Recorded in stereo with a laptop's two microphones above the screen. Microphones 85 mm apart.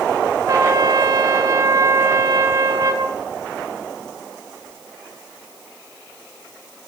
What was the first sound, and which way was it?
A trumpet, 45° right (ahead or behind).